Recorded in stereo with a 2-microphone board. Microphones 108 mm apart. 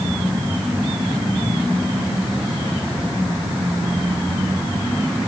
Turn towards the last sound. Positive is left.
No sound to turn to.